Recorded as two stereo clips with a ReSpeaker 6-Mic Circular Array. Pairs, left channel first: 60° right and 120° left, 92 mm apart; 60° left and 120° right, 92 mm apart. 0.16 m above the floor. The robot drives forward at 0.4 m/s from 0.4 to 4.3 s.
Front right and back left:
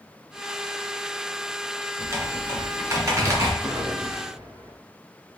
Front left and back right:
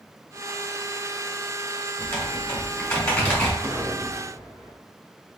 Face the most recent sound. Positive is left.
turn(degrees=170)